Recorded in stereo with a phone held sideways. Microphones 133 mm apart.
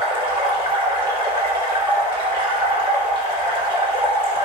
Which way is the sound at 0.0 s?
30° right (ahead or behind).